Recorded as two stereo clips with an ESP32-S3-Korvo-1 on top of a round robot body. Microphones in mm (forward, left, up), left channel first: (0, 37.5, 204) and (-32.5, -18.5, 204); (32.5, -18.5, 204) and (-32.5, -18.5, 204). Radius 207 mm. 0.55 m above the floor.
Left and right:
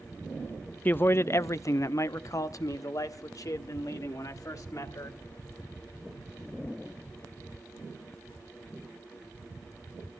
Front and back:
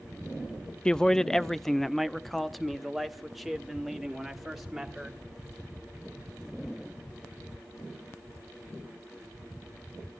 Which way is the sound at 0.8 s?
60° left.